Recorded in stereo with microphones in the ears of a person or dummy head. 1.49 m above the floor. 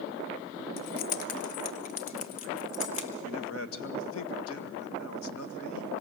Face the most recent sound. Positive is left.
turn(degrees=90)